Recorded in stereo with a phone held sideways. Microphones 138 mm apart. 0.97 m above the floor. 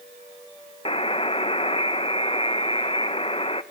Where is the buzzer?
40° left (ahead or behind), 0.8 m.